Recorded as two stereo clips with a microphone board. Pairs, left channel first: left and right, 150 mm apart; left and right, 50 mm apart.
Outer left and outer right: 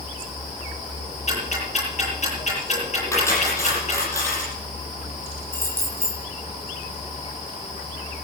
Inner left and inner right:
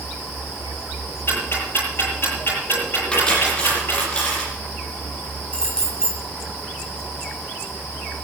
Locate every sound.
1.3 s ticking: 50° left (ahead or behind), 9.5 m
3.1 s cutlery clinking: 20° left (ahead or behind), 7.5 m
5.5 s keys jangling: 15° left (ahead or behind), 6 m